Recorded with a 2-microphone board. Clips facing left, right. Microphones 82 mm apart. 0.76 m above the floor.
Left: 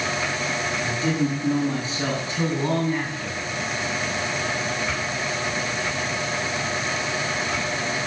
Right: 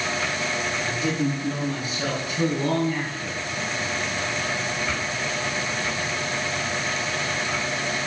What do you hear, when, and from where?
0.8 s a man speaking: 35° left (ahead or behind), 7 m; by 3.4 s 30° left (ahead or behind), 6 m